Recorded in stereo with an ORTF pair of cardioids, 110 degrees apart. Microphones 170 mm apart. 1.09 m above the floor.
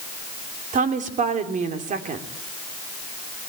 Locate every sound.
0.7 s a woman speaking: 50° right, 3.5 m